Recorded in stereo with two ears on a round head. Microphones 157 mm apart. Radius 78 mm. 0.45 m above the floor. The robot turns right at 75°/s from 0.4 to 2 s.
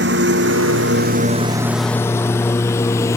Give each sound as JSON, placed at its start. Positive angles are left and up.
{"t": 0.0, "sound": "a lawn mower", "side_deg": -70}